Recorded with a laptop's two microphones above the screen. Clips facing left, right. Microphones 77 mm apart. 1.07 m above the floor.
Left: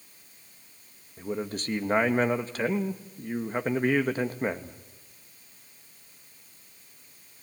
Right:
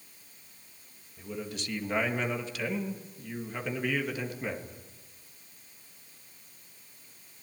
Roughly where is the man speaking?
Left.